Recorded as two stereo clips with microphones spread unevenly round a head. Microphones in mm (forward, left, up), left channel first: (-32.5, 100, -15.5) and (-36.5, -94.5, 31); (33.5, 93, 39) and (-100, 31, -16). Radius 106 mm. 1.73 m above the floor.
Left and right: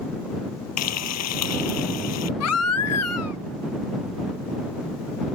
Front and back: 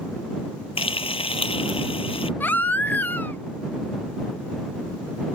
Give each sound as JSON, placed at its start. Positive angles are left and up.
{"t": 0.8, "sound": "frying", "azimuth_deg": 75}
{"t": 2.4, "sound": "a baby crying", "azimuth_deg": 90}